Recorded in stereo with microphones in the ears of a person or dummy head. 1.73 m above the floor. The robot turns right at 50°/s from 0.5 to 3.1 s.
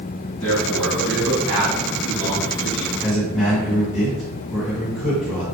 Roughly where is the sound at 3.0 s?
Centre.